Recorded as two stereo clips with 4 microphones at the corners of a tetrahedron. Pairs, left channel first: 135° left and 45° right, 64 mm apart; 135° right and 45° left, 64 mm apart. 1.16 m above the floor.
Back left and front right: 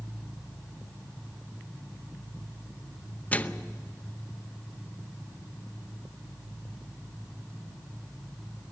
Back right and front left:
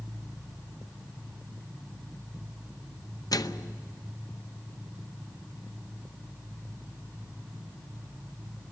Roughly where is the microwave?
Behind.